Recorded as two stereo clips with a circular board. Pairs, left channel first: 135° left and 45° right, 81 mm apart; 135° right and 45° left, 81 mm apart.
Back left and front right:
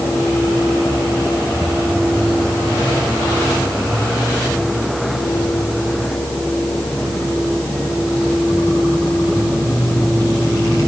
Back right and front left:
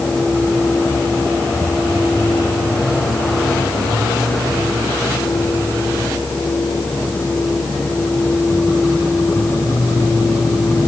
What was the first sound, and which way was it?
Only background noise.